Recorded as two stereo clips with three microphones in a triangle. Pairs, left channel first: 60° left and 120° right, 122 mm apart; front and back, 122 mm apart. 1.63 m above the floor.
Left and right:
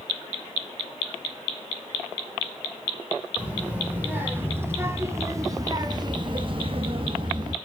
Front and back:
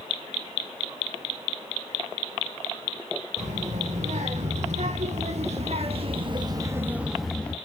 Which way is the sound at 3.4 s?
165° left.